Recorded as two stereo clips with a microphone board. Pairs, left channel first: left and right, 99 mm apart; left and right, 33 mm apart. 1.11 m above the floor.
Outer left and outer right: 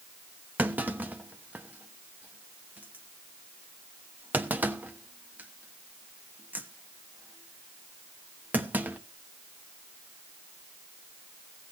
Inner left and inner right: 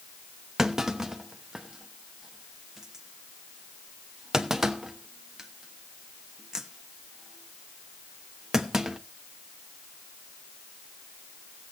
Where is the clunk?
15° right (ahead or behind), 1.0 m.